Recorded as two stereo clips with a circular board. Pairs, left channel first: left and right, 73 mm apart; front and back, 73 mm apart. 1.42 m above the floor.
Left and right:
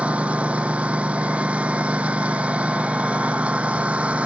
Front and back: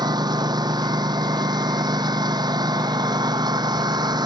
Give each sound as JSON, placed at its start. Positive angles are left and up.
{"t": 0.0, "sound": "a lawn mower", "azimuth_deg": -160}